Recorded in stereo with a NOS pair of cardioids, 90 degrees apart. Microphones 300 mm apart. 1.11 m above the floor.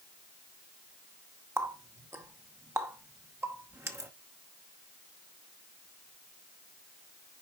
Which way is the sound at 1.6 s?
10° right.